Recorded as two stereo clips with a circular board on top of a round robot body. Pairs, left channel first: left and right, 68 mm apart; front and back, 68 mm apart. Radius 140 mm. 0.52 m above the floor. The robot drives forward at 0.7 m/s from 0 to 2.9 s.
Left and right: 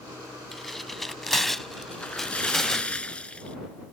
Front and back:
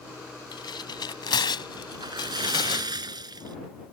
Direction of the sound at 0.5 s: 5° left.